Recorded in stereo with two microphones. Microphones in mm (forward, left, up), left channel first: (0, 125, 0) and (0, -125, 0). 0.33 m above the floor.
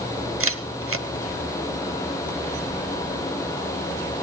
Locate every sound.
0.4 s a camera shutter: 60° right (ahead or behind), 0.8 m